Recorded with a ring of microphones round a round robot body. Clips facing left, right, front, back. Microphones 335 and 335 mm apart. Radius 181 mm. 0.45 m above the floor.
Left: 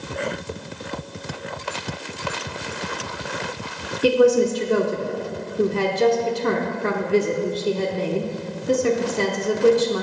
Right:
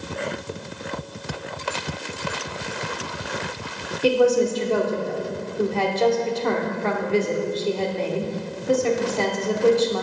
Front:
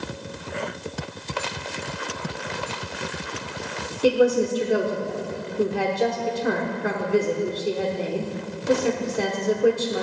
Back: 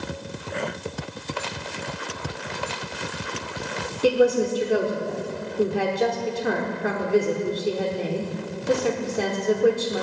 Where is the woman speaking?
90° left, 0.9 m.